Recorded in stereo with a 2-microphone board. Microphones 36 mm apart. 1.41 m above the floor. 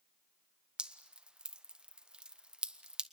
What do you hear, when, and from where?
0.8 s dripping: 25° right (ahead or behind), 1.1 m